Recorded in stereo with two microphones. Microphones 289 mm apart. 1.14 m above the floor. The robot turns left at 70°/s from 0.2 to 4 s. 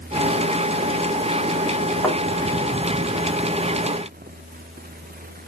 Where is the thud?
10° left (ahead or behind), 1.5 m; by 2.2 s centre (ahead or behind), 1.5 m.